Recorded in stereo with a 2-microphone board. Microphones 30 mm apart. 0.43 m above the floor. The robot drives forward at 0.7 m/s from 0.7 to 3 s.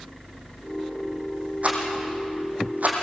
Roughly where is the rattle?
Right.